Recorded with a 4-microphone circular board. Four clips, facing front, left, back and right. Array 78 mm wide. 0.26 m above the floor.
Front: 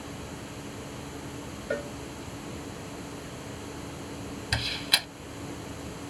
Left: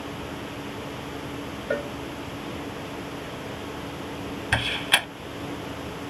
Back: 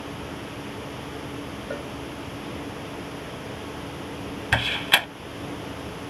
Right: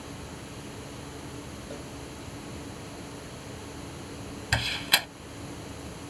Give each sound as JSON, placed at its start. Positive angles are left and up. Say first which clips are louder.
{"t": 1.7, "sound": "a cowbell", "louder": "left 15 dB, front 3 dB", "azimuth_deg": 80}
{"t": 4.5, "sound": "a door slam", "louder": "left 4 dB, back 9 dB", "azimuth_deg": 155}